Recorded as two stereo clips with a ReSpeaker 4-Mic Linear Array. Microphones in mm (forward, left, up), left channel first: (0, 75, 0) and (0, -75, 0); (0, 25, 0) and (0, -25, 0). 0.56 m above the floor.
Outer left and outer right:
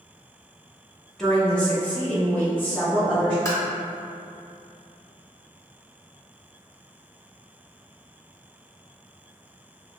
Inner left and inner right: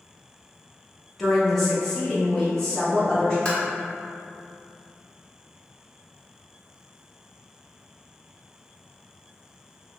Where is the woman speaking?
5° left (ahead or behind), 0.7 m; by 3.4 s 15° left (ahead or behind), 1.7 m.